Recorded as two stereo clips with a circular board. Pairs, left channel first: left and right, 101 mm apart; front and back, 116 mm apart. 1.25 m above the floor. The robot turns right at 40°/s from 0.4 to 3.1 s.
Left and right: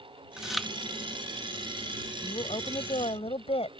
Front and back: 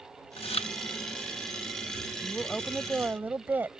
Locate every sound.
0.4 s chewing: 10° right; by 0.7 s 5° left
2.2 s a woman speaking: 70° left; by 3.8 s 105° left